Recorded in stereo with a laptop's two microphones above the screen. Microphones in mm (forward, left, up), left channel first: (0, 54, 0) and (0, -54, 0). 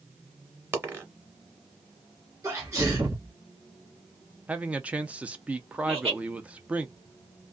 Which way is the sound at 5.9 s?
60° right (ahead or behind).